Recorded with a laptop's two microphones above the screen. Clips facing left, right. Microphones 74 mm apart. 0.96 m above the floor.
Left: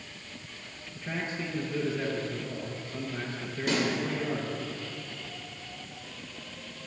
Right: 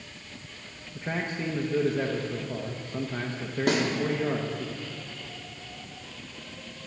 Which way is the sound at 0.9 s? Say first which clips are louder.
Right 3 dB; 45° right (ahead or behind).